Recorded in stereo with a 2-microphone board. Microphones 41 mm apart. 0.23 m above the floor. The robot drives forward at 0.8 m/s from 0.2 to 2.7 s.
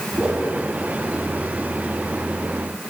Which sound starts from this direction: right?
A whoosh, at 0.2 s.